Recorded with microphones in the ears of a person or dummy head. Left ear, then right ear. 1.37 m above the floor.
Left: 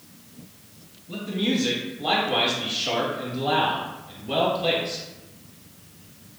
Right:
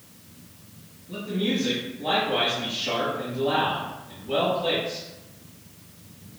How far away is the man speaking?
About 1.8 m.